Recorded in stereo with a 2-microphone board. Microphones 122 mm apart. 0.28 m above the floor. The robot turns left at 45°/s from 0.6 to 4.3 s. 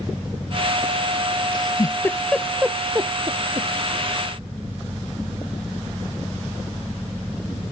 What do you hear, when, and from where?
1.5 s a giggle: 40° left (ahead or behind); by 3.7 s 55° right (ahead or behind)